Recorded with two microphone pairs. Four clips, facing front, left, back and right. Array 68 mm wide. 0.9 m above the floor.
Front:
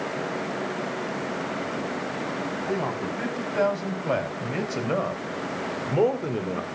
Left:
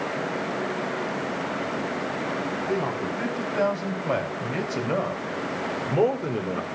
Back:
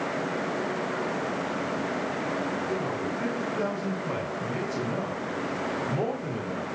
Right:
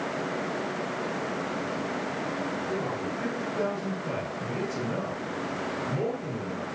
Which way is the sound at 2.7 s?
30° left.